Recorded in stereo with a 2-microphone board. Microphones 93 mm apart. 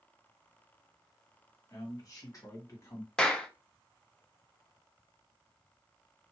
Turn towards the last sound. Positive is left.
turn(degrees=10)  # may be behind; listen again after turning